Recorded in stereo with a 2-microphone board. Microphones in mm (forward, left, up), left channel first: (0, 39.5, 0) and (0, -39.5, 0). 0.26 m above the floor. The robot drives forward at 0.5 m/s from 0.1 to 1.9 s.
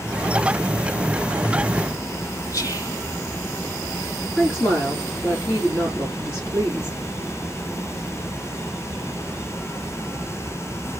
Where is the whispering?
40° left (ahead or behind), 1.5 m.